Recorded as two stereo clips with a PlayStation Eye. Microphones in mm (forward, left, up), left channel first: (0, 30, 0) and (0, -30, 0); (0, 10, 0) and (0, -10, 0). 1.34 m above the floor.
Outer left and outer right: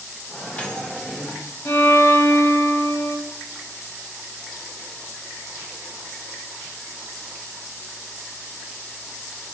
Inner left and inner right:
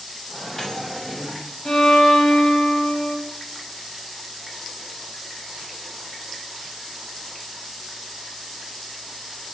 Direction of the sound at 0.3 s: 25° left (ahead or behind).